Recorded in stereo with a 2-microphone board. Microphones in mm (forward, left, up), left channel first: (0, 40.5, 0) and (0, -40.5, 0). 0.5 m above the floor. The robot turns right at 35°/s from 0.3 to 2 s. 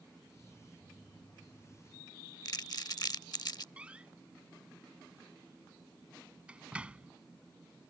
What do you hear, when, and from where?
2.5 s crumpling: 55° left (ahead or behind)
3.8 s a door slam: 15° right (ahead or behind)